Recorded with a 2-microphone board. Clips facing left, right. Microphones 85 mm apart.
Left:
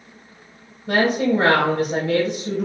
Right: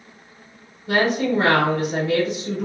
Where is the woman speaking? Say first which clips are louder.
Left 1 dB; 40° left (ahead or behind), 1.5 m.